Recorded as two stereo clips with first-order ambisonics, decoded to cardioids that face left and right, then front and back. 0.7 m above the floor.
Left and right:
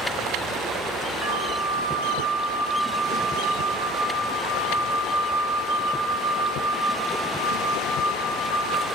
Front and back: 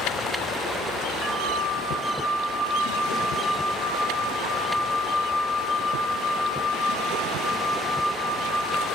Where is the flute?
105° right, 0.8 m.